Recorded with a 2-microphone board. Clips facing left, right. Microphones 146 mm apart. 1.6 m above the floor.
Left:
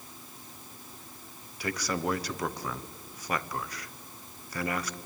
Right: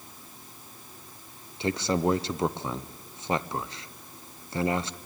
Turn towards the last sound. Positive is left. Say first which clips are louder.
# right 6 dB
turn(degrees=-25)  # may be behind; listen again after turning